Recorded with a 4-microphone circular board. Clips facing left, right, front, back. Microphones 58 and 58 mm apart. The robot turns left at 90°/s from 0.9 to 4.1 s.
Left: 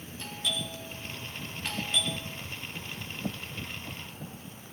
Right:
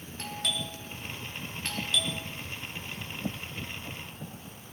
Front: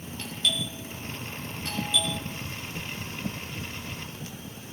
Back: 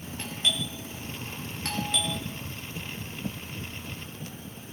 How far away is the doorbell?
About 4 m.